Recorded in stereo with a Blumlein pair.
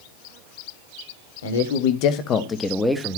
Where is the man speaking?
65° left, 1.8 m; by 3.2 s 15° right, 1.5 m.